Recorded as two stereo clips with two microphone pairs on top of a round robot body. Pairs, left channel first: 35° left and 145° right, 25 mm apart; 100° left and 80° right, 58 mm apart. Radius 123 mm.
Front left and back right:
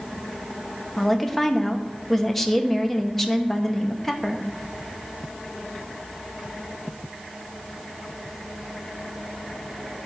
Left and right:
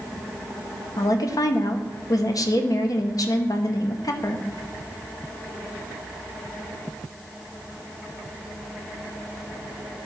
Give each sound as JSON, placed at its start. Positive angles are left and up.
{"t": 1.0, "sound": "a woman speaking", "azimuth_deg": 115, "distance_m": 1.1}